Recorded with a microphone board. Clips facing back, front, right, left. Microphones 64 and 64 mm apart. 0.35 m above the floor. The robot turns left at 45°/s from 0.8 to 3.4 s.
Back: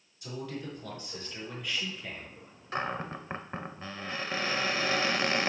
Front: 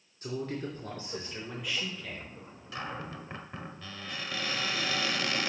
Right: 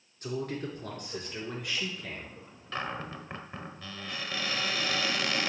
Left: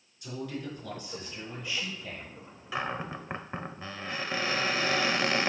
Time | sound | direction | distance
0.2 | a man speaking | 50° right | 4 m
2.7 | a cupboard door | 170° left | 0.8 m